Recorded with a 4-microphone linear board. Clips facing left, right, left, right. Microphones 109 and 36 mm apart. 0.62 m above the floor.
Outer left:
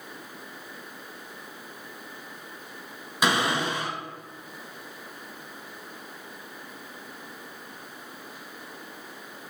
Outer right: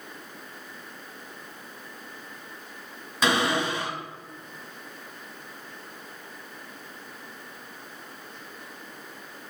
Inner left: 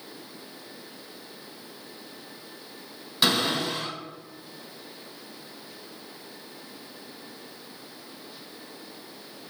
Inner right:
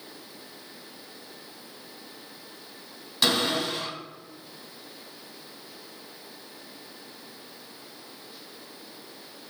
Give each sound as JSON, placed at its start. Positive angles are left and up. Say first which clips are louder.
{"t": 3.2, "sound": "a cupboard door", "louder": "outer right 1 dB, even", "side_deg": 10, "distance_m": 1.2}